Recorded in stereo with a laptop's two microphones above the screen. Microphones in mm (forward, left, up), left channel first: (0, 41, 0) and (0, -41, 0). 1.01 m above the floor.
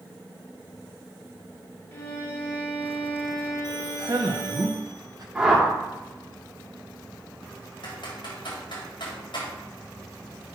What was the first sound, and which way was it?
A violin, 25° left (ahead or behind).